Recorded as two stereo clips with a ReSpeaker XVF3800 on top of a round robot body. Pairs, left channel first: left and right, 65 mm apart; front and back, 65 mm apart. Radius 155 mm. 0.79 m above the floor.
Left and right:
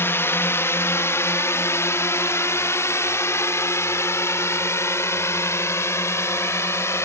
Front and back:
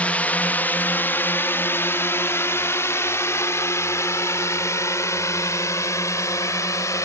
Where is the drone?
60° left; by 7.0 s 45° left.